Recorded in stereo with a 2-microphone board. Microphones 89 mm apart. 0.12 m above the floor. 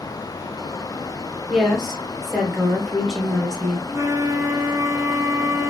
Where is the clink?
I don't hear a clink.